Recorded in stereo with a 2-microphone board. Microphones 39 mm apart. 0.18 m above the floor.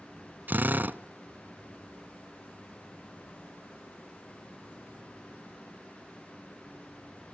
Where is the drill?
50° right (ahead or behind), 0.7 m.